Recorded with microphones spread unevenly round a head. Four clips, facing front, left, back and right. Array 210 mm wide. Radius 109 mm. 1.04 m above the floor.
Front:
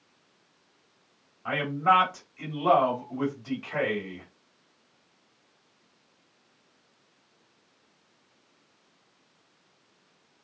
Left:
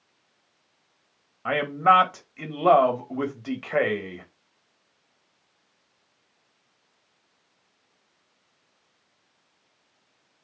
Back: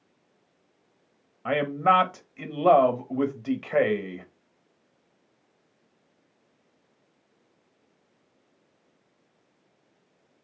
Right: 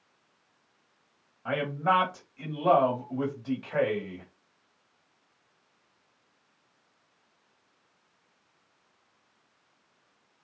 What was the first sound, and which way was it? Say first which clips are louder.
A man speaking: left 7 dB, back 2 dB; 155° left.